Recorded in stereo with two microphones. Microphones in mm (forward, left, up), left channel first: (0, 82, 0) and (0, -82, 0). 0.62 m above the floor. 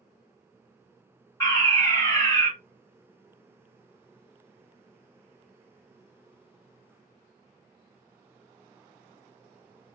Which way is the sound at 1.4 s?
20° left (ahead or behind).